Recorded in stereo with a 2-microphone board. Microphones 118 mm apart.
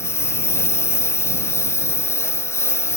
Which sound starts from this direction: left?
A lawn mower, at 0.0 s.